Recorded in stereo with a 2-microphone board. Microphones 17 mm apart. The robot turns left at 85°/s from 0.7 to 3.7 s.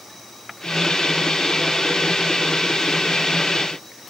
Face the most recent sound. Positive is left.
No sound to turn to.